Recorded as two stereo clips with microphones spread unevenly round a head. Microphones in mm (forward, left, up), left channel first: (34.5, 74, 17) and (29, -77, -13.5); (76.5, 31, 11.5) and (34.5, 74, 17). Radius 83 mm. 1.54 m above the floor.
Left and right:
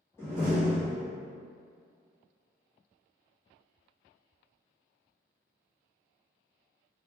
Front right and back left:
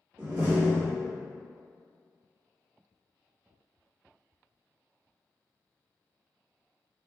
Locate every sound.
0.2 s a door slam: 140° left, 1.0 m